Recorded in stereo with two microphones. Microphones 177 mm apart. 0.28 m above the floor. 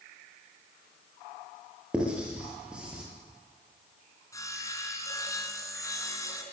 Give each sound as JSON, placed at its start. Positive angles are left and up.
{"t": 1.9, "sound": "writing", "side_deg": -5, "distance_m": 7.5}
{"t": 4.3, "sound": "sawing", "side_deg": 20, "distance_m": 3.0}